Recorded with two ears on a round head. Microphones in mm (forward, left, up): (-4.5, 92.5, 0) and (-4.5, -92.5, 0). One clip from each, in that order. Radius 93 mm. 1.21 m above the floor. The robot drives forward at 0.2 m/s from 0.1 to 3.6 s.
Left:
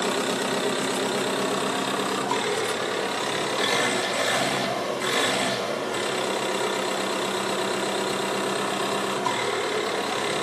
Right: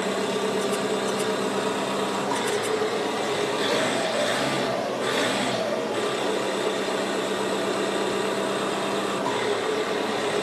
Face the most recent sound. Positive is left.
turn(degrees=30)  # may be behind; listen again after turning